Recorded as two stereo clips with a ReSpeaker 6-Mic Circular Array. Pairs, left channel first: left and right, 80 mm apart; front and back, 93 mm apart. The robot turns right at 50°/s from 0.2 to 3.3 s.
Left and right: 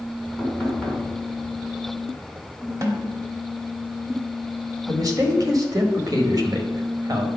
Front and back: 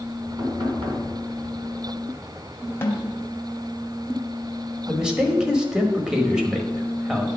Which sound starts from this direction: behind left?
Knocking, at 0.4 s.